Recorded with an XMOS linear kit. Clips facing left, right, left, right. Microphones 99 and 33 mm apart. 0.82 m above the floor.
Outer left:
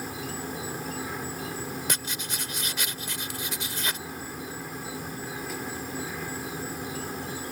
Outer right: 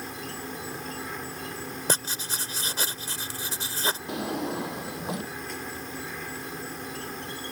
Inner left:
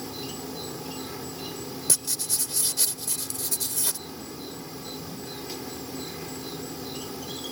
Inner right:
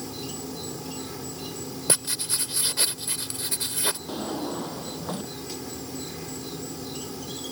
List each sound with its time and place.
0.0 s an insect: 5° left (ahead or behind)
1.9 s writing: 35° right (ahead or behind)
4.1 s a drawer: 90° right